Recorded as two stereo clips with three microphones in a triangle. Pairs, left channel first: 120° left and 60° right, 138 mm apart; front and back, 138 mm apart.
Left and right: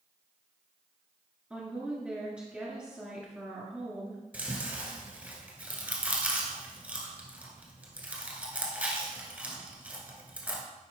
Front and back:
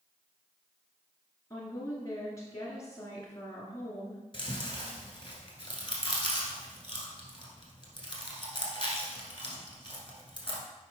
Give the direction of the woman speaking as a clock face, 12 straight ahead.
12 o'clock.